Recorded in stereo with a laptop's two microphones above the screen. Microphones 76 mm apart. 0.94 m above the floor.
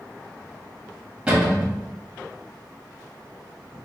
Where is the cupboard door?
15° right (ahead or behind), 1.5 m.